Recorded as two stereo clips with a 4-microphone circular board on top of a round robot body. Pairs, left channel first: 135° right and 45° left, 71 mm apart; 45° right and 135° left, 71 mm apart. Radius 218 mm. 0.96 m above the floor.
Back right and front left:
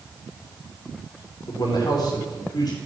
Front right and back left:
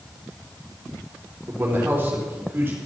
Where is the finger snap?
No finger snap in this recording.